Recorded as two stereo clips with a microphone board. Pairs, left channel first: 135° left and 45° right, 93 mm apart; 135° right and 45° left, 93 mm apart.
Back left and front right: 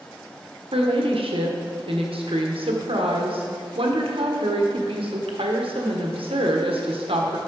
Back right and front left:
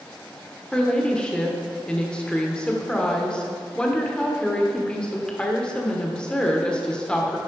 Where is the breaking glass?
I don't hear breaking glass.